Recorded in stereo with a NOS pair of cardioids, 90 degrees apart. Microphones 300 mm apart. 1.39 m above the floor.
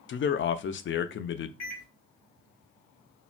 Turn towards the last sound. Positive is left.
turn(degrees=65)